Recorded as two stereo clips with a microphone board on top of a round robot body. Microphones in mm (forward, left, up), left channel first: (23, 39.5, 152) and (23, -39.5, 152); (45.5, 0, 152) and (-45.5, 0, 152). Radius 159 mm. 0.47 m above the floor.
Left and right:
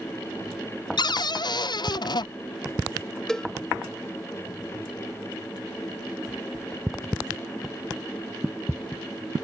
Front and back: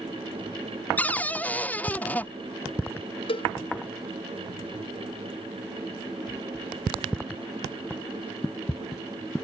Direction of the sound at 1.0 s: 75° left.